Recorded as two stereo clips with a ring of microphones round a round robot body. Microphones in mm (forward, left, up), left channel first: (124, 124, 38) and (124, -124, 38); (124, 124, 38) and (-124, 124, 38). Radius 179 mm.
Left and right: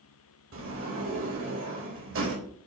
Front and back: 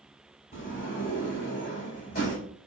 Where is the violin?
No violin in this recording.